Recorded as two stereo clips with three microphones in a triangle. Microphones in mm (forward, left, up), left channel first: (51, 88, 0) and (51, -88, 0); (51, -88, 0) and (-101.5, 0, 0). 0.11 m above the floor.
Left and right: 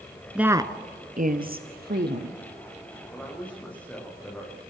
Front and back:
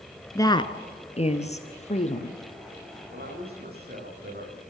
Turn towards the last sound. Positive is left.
turn(degrees=170)